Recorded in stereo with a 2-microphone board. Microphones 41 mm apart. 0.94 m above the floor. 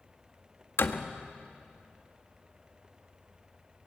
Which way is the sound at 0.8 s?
75° left (ahead or behind).